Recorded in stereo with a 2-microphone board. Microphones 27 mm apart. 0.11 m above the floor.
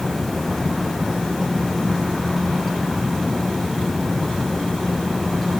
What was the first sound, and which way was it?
Only background noise.